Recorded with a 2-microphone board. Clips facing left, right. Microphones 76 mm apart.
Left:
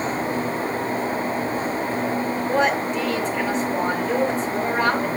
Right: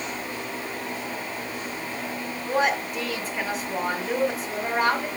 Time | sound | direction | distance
2.5 | a woman speaking | 5° right (ahead or behind) | 2 m